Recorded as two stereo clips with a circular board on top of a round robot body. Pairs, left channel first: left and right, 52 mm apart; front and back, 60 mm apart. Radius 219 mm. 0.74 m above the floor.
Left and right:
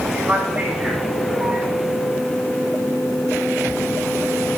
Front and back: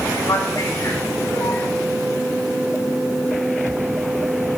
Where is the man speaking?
10° right, 7 m.